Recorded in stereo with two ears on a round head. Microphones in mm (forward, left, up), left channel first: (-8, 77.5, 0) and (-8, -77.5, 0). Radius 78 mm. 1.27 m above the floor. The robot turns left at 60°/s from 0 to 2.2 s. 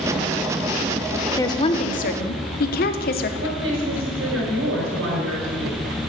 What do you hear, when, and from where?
1.4 s a woman speaking: 160° left, 1.0 m; by 3.3 s 110° left, 1.0 m
3.4 s a woman speaking: 85° right, 5.5 m